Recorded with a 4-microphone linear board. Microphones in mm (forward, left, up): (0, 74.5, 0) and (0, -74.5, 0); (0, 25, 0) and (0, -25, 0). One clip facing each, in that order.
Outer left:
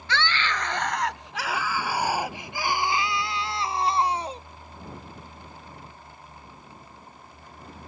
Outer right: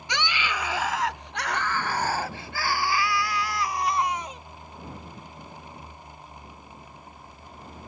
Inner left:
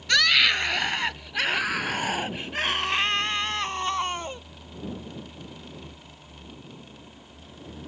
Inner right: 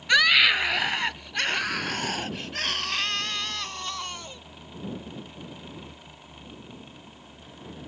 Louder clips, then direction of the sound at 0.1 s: Outer left 2 dB, inner right 2 dB; 15° right (ahead or behind).